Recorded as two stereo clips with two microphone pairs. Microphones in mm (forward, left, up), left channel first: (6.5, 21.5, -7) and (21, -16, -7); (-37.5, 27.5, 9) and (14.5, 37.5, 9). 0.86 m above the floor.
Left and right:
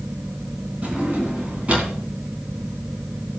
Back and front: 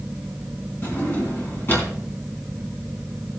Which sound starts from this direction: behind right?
A drawer, at 0.8 s.